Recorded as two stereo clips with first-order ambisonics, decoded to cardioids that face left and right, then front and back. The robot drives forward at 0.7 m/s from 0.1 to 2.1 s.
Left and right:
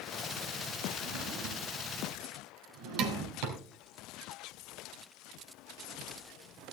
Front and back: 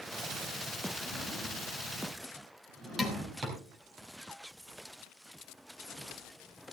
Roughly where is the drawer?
Right.